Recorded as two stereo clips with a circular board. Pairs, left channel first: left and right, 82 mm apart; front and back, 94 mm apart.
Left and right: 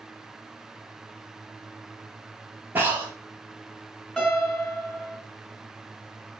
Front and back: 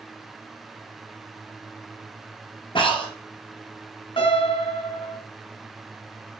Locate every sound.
2.8 s breathing: 25° right, 3 m
4.2 s a piano: 10° left, 3.5 m